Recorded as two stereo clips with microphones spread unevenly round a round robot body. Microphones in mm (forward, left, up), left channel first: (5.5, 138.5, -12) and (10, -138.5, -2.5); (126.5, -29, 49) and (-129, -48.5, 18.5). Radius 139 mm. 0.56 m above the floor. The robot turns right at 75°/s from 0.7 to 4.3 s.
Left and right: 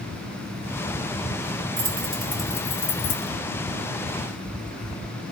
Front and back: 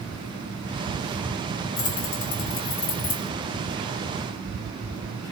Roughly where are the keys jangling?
Ahead right.